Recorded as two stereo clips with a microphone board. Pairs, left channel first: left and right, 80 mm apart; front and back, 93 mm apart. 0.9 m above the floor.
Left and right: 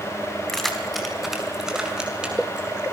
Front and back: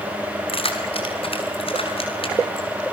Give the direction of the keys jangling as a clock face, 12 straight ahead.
12 o'clock.